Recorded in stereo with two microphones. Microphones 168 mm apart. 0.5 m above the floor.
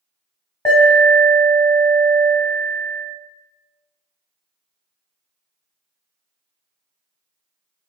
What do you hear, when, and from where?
0.7 s an alarm: 25° left (ahead or behind), 1.7 m